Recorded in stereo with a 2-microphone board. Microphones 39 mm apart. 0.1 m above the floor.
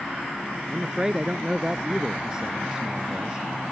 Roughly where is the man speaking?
Centre.